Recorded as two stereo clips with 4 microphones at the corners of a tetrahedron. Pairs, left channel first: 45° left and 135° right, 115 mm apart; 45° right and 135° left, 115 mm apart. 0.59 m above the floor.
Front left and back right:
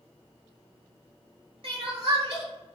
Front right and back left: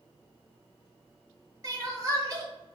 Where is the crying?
170° right, 1.1 m.